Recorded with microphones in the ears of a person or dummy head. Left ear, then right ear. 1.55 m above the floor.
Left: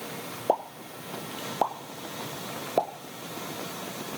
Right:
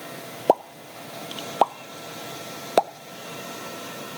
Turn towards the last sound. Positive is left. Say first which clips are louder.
# right 6 dB
turn(degrees=-60)  # may be behind; listen again after turning